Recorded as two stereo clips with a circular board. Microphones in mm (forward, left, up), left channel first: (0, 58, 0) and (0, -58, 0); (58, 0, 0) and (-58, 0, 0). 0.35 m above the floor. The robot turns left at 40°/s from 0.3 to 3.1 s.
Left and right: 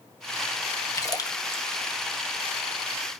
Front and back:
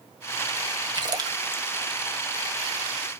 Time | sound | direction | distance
0.9 | a splash | 145° left | 1.9 m